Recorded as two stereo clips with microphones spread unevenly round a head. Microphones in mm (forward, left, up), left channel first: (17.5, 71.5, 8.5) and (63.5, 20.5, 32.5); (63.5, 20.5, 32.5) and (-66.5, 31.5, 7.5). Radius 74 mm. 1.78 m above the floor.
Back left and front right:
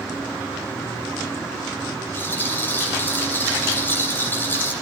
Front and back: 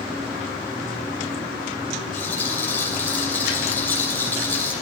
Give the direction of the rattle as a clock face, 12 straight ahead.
10 o'clock.